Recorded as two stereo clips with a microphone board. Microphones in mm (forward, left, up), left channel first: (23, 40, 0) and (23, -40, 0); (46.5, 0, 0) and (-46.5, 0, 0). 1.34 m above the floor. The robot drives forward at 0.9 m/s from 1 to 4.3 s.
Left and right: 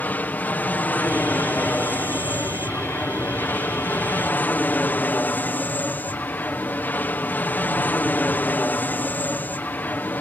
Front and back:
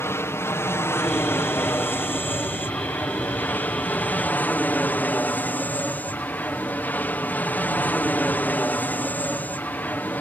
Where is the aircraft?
40° left; by 10.2 s 50° left.